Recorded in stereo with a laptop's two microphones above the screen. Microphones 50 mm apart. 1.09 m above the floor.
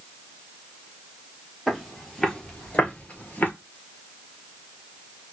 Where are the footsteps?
Centre (ahead or behind), 1.4 m; by 3.5 s 35° left (ahead or behind), 1.2 m.